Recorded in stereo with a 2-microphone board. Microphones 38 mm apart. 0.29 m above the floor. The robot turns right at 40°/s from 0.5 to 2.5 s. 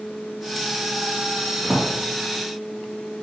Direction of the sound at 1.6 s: 10° right (ahead or behind).